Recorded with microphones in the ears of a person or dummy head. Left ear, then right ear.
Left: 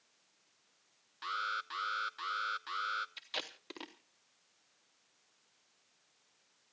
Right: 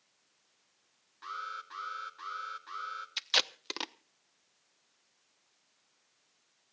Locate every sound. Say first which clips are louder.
1.2 s an alarm: left 3 dB; 30° left (ahead or behind), 1.0 m
3.2 s tape being pulled: right 12 dB; 50° right (ahead or behind), 0.7 m